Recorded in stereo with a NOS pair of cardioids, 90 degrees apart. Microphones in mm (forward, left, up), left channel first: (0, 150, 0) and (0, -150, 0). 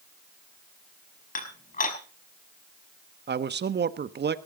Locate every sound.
1.4 s dishes clattering: 30° left, 5.5 m
3.3 s a man speaking: 35° right, 1.3 m